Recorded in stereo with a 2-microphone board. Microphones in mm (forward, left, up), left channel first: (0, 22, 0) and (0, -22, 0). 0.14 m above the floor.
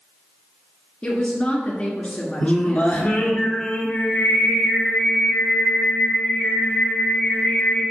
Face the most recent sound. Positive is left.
turn(degrees=35)  # may be behind; listen again after turning